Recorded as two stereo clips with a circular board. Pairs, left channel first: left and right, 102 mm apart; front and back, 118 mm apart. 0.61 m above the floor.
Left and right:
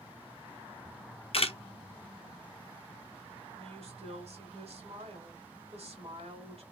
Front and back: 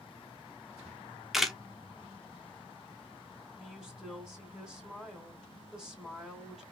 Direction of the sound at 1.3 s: 95° left.